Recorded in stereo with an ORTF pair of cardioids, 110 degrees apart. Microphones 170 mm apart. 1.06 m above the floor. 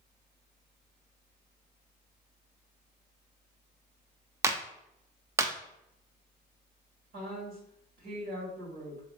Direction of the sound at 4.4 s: 15° right.